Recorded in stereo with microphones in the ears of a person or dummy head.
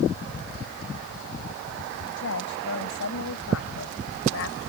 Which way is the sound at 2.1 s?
85° left.